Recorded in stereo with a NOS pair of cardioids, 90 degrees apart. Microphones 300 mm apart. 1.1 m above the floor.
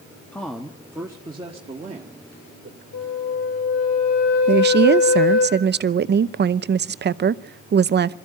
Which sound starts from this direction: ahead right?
A woman speaking, at 4.5 s.